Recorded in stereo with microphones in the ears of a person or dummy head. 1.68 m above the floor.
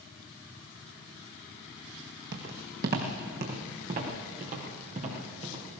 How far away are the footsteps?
About 3 m.